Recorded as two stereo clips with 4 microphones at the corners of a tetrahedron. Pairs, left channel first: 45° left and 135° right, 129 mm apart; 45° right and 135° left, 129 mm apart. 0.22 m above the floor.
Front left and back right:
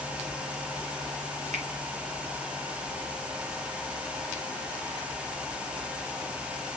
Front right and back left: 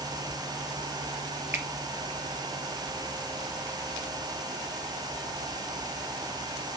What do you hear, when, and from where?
1.5 s a finger snap: 150° right, 2.5 m